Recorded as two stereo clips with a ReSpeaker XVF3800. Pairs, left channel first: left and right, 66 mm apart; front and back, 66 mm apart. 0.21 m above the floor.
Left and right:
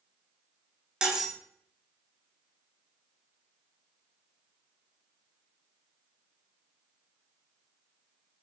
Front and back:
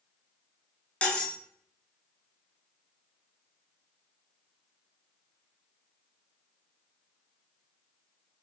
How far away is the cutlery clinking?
About 0.8 m.